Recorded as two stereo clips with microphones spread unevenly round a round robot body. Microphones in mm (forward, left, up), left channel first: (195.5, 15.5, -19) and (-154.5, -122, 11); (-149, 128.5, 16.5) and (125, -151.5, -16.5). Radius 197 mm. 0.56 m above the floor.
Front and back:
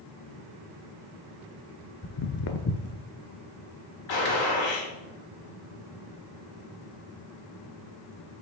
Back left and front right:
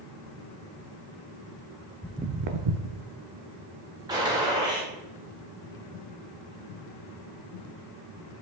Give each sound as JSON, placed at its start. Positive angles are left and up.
{"t": 2.0, "sound": "footsteps", "azimuth_deg": 65, "distance_m": 0.6}
{"t": 4.1, "sound": "a gunshot", "azimuth_deg": 30, "distance_m": 1.8}